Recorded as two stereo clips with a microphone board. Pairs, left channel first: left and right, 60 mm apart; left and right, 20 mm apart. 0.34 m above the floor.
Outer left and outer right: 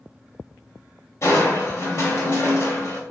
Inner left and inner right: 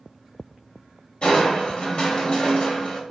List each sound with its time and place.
1.2 s crushing: 50° left (ahead or behind), 0.7 m